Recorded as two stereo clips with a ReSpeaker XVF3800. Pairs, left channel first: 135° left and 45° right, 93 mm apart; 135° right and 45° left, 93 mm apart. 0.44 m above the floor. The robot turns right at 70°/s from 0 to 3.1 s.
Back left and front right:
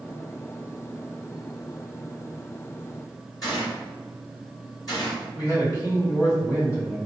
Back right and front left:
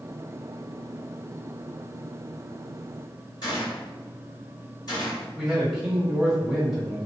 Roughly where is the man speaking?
Behind left.